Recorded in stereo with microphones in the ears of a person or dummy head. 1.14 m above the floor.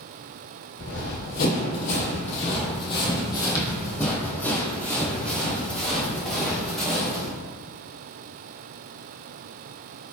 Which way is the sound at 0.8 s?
55° left (ahead or behind).